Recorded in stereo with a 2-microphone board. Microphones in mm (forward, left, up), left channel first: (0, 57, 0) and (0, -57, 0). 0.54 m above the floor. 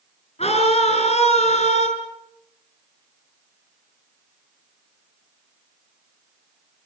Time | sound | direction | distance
0.4 | a scream | 70° left (ahead or behind) | 7.5 m